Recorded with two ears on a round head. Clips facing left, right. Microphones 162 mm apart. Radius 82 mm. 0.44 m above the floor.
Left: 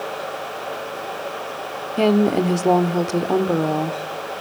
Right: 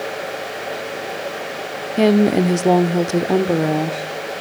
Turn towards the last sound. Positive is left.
turn(degrees=-10)  # may be behind; listen again after turning